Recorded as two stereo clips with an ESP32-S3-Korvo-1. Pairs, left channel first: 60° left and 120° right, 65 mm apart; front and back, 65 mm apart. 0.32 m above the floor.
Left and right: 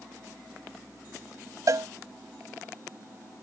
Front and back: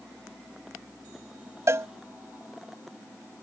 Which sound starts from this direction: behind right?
A cowbell, at 1.7 s.